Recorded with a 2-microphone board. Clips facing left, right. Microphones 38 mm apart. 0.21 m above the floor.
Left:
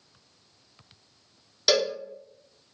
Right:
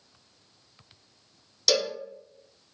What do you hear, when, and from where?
1.7 s a cowbell: 20° left (ahead or behind), 0.8 m